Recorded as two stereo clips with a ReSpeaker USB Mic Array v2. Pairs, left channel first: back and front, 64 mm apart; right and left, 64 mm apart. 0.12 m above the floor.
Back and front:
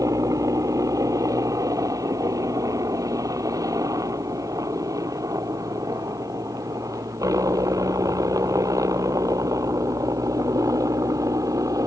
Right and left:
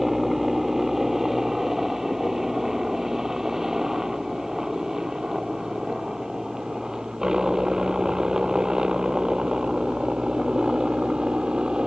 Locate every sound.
0.0 s a helicopter: 5° left; by 11.9 s 15° left